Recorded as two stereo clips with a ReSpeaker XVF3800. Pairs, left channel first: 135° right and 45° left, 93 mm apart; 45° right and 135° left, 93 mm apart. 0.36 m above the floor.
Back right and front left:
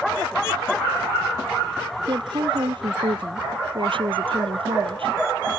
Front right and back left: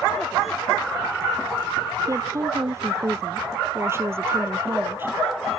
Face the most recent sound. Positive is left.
turn(degrees=70)